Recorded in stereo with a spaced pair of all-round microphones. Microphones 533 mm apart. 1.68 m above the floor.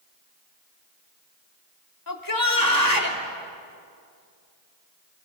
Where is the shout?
40° left (ahead or behind), 4 m.